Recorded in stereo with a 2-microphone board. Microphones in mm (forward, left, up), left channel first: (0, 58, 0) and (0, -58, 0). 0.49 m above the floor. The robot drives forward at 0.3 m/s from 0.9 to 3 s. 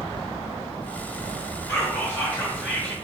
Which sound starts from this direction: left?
Whispering, at 1.7 s.